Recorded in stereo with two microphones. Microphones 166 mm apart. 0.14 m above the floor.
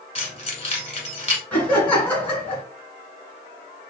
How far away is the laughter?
About 1.3 m.